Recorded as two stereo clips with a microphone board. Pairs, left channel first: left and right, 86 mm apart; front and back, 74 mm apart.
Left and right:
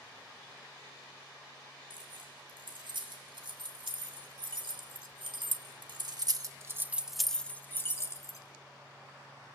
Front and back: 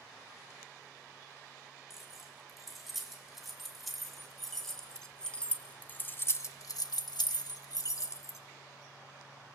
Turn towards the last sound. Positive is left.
turn(degrees=45)